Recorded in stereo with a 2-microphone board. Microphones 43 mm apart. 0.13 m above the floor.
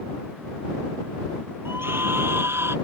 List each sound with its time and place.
1.6 s a scream: 60° right (ahead or behind); by 2.8 s 65° right (ahead or behind)